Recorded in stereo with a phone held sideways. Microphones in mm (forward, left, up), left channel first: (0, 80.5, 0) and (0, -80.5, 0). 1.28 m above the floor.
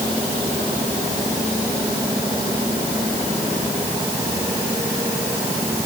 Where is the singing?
No singing in this recording.